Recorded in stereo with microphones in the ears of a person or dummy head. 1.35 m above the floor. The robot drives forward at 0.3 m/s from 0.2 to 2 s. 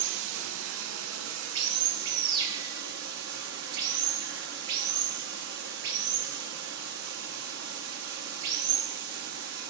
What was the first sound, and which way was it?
Running water, 80° right.